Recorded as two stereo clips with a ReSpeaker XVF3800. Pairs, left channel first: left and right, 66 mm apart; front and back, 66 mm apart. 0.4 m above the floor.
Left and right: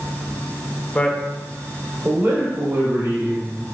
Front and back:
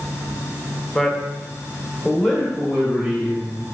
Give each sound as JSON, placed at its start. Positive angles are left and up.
{"t": 0.9, "sound": "a man speaking", "azimuth_deg": 70, "distance_m": 0.8}